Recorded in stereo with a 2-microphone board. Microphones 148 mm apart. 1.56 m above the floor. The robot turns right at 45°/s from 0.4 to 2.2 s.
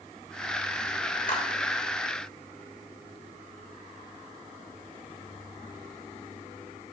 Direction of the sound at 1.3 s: 55° left (ahead or behind).